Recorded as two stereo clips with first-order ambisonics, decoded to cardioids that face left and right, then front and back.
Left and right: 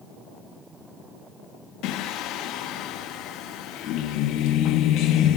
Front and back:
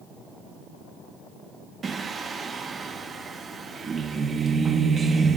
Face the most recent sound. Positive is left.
turn(degrees=115)